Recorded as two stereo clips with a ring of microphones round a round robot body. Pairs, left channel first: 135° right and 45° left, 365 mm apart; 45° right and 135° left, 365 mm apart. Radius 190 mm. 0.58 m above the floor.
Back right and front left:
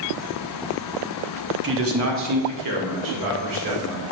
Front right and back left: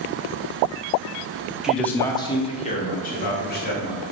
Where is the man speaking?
50° left, 0.9 m; by 4.0 s 20° left, 2 m.